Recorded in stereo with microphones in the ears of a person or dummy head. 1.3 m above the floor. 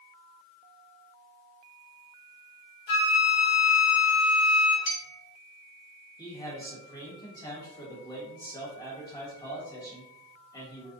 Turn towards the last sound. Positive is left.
turn(degrees=20)  # may be behind; listen again after turning